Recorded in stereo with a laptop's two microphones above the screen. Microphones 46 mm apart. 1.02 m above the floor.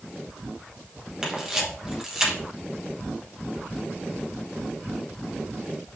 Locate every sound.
1.2 s a camera shutter: 15° right (ahead or behind), 1.2 m